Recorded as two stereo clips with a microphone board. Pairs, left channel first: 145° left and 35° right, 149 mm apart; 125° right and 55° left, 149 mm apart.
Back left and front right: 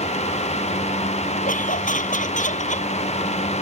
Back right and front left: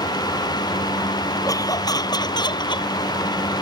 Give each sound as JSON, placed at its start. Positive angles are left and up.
{"t": 1.4, "sound": "laughter", "azimuth_deg": 170}